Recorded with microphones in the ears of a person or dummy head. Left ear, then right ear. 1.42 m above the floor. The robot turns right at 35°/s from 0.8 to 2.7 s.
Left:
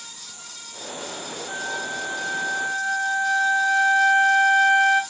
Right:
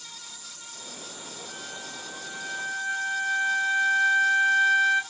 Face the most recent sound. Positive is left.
turn(degrees=160)